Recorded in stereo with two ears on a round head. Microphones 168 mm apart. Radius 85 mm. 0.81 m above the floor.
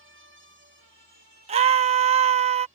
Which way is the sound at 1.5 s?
30° right (ahead or behind).